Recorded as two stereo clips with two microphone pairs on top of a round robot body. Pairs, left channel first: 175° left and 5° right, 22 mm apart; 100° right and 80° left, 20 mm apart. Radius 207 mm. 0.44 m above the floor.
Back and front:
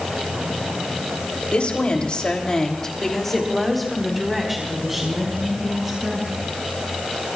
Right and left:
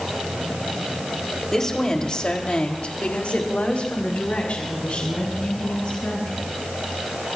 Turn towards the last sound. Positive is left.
turn(degrees=-75)